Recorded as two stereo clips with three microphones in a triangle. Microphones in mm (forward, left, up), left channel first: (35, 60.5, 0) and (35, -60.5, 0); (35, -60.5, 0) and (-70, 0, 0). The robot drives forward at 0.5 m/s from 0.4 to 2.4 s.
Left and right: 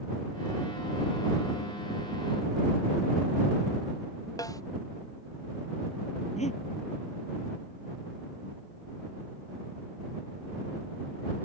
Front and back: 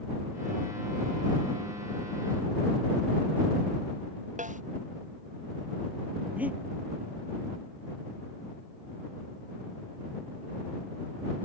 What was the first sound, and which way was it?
A snare drum, 155° left.